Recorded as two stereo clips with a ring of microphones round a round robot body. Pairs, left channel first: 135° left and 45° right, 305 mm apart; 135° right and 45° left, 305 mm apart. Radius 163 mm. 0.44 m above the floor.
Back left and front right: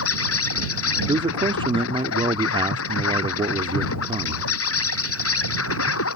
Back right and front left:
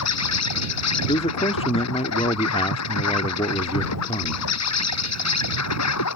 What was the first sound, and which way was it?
An insect, 175° right.